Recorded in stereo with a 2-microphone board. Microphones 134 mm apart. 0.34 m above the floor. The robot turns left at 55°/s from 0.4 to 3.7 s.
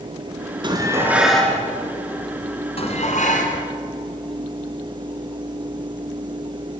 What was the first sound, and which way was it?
Dishes clattering, 140° right.